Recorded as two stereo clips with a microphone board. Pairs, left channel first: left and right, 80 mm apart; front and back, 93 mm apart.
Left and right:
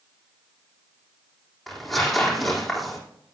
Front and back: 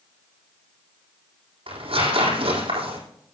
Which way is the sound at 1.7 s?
Straight behind.